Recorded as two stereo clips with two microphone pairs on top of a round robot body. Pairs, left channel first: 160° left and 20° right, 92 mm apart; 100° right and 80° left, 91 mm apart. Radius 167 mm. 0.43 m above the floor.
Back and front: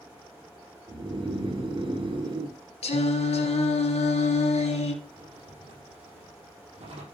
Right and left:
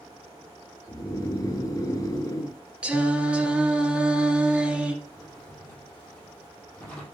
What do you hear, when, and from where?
0.9 s snoring: 50° right, 1.6 m
2.8 s singing: 160° left, 2.5 m
5.0 s a drawer: 25° right, 5 m